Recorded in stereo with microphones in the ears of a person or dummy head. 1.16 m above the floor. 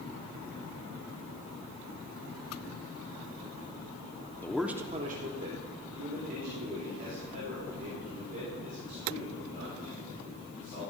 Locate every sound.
4.4 s a man speaking: 10° left (ahead or behind), 0.8 m; by 10.8 s 50° right (ahead or behind), 8 m